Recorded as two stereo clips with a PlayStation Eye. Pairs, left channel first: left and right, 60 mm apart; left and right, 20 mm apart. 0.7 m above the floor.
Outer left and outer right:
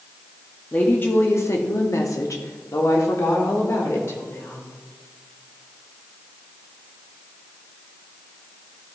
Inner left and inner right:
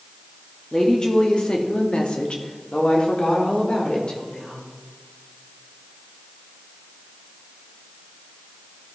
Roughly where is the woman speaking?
Left.